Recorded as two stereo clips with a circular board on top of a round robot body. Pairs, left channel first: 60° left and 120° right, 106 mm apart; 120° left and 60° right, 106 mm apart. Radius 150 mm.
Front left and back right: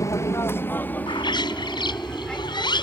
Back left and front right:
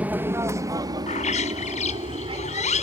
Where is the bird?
110° left.